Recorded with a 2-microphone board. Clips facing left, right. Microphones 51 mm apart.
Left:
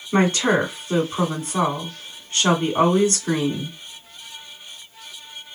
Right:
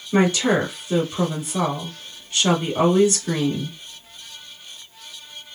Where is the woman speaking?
40° left (ahead or behind), 1.9 m.